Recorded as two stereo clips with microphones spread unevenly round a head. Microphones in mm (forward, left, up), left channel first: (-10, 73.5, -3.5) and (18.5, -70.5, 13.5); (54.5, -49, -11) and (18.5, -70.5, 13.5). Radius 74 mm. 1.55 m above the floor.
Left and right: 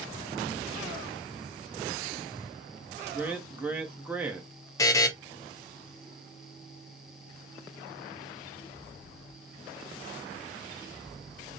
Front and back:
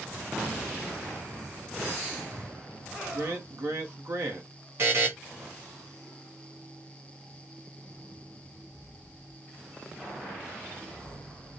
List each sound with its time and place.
3.1 s a man speaking: 160° right, 0.8 m
4.8 s a buzzer: 170° left, 0.5 m